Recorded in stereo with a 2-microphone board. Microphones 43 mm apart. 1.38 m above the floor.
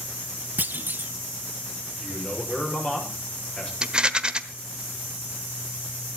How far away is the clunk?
About 0.7 m.